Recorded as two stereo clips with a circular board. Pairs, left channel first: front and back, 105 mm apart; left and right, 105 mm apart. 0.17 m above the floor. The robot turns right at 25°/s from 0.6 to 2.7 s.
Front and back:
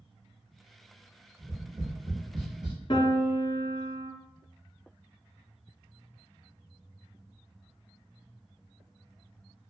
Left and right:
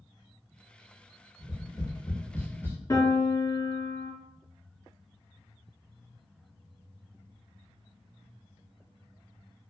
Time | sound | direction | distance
1.4 | tapping | 125° left | 1.2 m
2.9 | a piano | 35° left | 0.5 m